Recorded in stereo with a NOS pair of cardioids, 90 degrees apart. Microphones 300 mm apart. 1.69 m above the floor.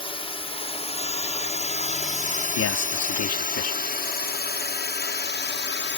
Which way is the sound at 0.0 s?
15° left.